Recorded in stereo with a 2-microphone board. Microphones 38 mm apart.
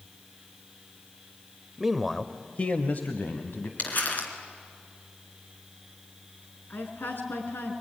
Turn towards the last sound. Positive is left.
turn(degrees=60)  # may be behind; listen again after turning